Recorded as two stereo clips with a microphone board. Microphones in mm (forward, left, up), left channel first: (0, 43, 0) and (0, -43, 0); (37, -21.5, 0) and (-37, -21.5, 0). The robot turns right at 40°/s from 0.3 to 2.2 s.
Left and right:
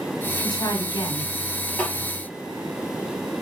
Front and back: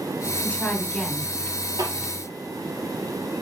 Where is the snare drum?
160° left, 3.5 m; by 1.9 s 170° left, 3.5 m.